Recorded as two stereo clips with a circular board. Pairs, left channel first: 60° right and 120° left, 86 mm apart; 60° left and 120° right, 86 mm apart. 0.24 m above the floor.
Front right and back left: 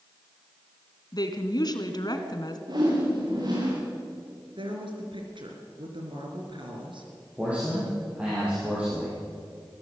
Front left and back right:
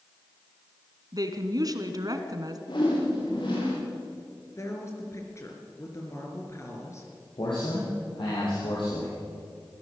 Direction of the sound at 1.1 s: 85° right.